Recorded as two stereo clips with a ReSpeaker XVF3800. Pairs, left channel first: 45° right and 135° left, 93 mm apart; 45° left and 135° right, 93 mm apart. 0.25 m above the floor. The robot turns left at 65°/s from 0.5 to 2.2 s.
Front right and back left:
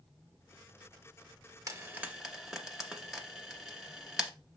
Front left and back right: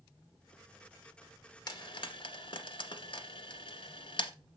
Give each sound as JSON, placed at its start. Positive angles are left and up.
{"t": 1.7, "sound": "frying", "azimuth_deg": 85, "distance_m": 1.5}